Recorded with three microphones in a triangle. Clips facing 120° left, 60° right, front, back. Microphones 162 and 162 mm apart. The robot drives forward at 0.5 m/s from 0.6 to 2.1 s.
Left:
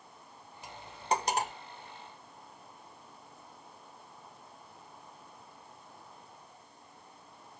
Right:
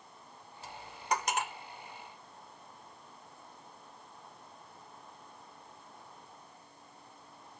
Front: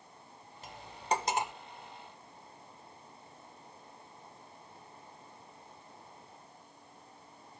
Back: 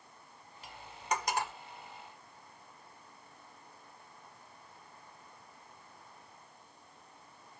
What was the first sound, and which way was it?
Cutlery clinking, 45° left.